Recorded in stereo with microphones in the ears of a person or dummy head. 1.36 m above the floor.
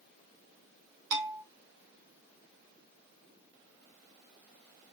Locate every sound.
1.1 s a bell: 65° right (ahead or behind), 2.5 m